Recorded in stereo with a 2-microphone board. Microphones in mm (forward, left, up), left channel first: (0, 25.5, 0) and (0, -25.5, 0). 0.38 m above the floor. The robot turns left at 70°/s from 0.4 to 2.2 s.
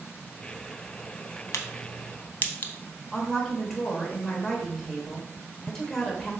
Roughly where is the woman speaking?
Centre.